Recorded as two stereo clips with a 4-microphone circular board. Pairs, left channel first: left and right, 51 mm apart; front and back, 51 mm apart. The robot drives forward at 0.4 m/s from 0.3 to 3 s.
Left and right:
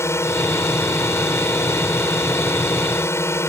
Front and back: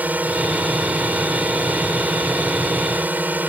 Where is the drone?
125° left.